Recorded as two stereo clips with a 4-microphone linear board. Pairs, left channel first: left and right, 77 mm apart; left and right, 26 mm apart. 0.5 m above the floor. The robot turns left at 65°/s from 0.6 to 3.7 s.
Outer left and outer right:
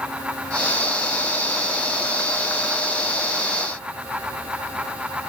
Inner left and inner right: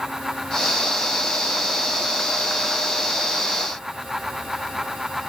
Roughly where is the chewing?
I don't hear chewing.